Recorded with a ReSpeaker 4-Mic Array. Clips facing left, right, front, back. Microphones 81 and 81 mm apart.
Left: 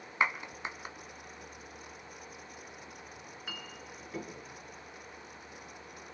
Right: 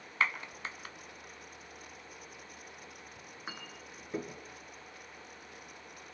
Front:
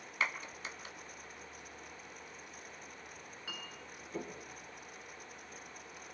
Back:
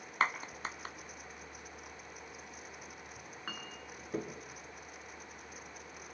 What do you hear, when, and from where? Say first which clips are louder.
0.2 s a clap: left 2 dB, back 5 dB; 155° left, 1.2 m
3.2 s a clink: right 1 dB, back 3 dB; 145° right, 2.5 m